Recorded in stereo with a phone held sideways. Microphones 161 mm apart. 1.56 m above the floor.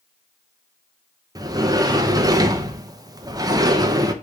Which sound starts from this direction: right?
A sliding door, at 1.4 s.